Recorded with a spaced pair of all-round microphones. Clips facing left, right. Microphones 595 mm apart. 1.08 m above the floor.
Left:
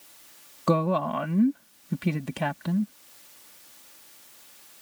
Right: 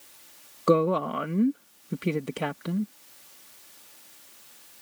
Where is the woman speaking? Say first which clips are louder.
Right 3 dB; 20° left (ahead or behind).